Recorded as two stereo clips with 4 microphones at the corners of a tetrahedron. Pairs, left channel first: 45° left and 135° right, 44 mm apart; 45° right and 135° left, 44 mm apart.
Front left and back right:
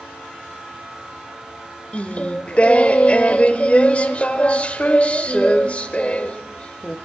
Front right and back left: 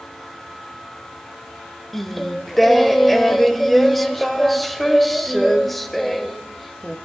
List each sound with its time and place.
1.9 s singing: 40° left, 0.9 m